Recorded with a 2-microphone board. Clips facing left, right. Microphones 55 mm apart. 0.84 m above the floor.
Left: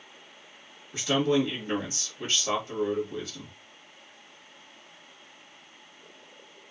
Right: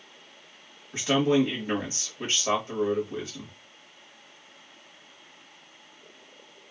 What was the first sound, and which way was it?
A man speaking, 45° right (ahead or behind).